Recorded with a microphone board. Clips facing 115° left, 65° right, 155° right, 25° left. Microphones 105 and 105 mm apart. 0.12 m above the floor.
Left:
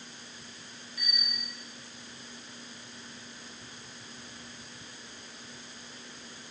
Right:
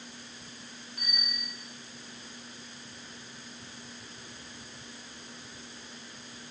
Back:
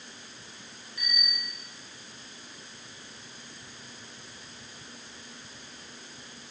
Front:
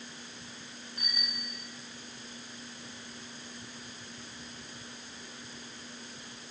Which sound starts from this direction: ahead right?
A bicycle bell, at 1.0 s.